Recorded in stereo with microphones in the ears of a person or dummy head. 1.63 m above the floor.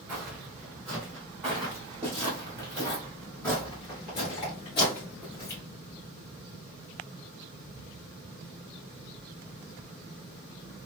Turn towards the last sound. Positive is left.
turn(degrees=20)  # may be behind; listen again after turning